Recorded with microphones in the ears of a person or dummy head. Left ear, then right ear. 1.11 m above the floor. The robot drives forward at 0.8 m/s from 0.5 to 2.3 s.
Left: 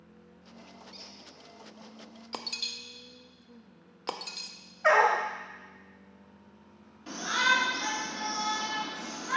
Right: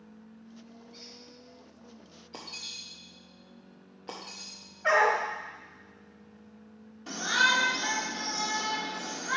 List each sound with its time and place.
0.9 s a squeak: 35° left (ahead or behind), 1.3 m; by 1.1 s 40° left (ahead or behind), 1.2 m
2.3 s breaking glass: 55° left (ahead or behind), 0.7 m
4.8 s a dog barking: 65° left (ahead or behind), 1.8 m
7.1 s a shout: 5° right (ahead or behind), 1.3 m